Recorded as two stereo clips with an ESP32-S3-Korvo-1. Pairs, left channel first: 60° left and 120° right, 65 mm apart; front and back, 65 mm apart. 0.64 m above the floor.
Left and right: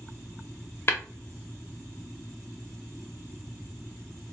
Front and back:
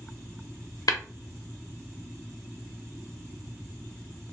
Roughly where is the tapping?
Ahead.